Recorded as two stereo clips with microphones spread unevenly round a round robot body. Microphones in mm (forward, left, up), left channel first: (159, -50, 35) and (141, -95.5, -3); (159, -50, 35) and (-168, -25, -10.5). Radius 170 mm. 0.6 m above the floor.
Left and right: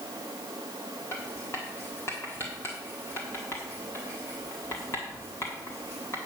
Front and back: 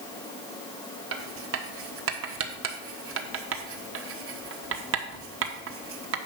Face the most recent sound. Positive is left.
turn(degrees=155)